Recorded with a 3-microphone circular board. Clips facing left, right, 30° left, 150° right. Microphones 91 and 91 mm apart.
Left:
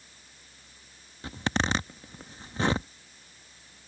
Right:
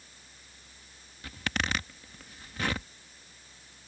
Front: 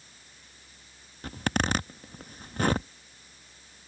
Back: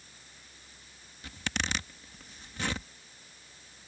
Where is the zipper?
40° left.